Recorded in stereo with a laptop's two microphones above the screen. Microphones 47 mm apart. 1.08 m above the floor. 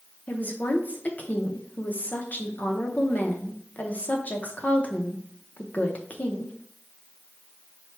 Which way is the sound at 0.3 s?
35° left (ahead or behind).